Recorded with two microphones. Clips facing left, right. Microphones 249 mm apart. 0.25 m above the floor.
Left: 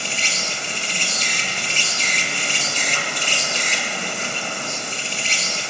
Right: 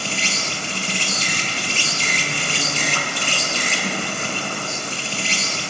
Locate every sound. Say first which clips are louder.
0.0 s an insect: right 3 dB; 55° right (ahead or behind), 1.2 m